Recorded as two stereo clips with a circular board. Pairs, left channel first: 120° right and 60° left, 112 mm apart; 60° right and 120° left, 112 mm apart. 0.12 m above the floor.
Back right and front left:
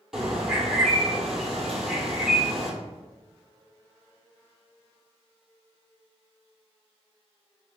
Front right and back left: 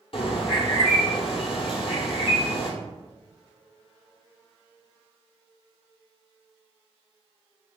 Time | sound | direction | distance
0.1 | a bird | 25° right | 0.8 m